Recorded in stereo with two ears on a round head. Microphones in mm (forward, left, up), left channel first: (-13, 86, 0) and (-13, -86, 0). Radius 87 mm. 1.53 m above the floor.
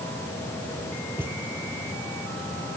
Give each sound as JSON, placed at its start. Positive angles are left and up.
{"t": 1.2, "sound": "a thud", "side_deg": -10}